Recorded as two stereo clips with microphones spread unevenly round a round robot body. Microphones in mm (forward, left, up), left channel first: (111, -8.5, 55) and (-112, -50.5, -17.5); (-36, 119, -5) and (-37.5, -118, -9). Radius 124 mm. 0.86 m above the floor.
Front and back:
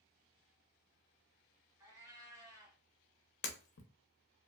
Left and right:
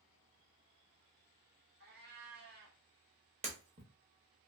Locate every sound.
1.8 s a cat meowing: 80° right, 1.0 m
3.4 s breaking glass: 25° right, 0.6 m